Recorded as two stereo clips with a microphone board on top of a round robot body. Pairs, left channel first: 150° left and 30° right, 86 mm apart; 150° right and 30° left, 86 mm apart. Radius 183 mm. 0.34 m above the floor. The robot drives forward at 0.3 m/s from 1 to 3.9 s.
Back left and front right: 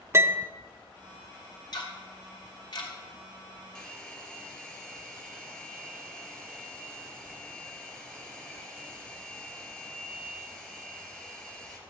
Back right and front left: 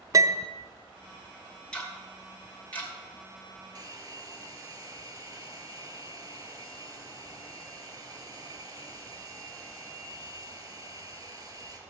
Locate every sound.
0.1 s a piano: 15° left, 0.7 m
1.7 s ticking: 130° left, 2.5 m; by 2.9 s 140° left, 2.5 m
3.8 s a hair dryer: 75° left, 3 m